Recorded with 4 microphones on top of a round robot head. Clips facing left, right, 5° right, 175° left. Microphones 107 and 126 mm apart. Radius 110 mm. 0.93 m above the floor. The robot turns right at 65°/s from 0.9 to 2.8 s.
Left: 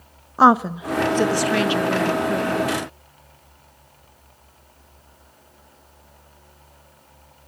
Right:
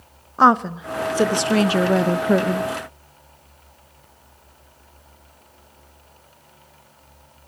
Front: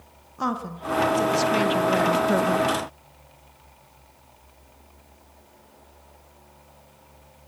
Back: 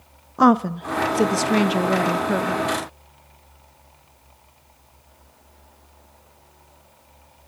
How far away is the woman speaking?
About 0.9 m.